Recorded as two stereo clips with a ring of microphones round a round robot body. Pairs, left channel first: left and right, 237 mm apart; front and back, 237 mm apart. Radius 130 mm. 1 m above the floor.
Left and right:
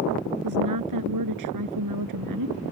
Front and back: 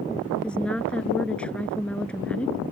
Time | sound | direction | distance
0.4 | a woman speaking | 85° right | ?